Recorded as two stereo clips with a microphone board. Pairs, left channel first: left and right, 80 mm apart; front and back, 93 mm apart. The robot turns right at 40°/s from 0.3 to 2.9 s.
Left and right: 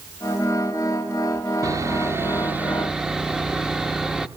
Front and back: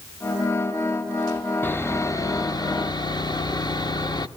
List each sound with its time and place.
1.6 s sawing: 60° right, 0.9 m; by 4.3 s 10° right, 0.9 m